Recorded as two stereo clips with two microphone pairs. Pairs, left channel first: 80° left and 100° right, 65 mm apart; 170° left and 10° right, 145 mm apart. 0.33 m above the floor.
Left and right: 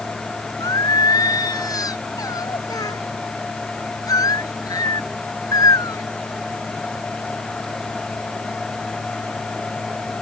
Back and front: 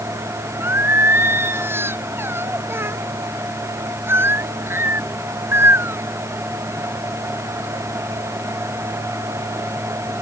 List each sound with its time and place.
0.6 s singing: 65° left